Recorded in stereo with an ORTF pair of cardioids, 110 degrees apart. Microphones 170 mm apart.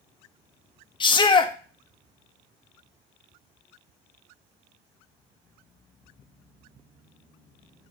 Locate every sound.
1.0 s a shout: 30° left, 1.8 m